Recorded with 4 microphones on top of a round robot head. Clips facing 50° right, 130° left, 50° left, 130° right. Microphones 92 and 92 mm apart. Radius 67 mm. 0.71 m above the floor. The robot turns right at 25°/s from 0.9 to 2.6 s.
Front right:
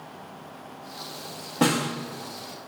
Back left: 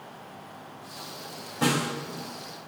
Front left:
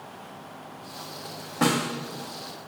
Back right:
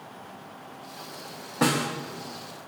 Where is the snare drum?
40° right, 0.9 m; by 1.9 s 35° right, 0.9 m.